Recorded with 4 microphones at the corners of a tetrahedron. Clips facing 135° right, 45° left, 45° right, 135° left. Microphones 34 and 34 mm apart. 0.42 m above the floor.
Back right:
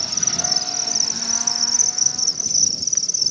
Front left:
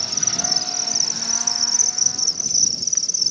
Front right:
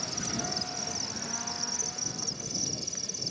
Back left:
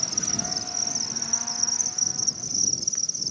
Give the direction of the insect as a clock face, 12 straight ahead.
1 o'clock.